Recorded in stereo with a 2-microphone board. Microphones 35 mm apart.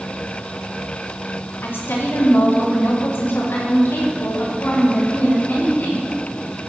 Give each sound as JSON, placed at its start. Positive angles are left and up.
{"t": 1.6, "sound": "a woman speaking", "side_deg": 75, "distance_m": 3.0}